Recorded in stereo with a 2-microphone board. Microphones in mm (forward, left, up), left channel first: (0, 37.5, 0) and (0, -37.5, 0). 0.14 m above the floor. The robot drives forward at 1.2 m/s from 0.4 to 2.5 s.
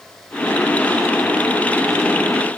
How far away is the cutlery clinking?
No cutlery clinking in this recording.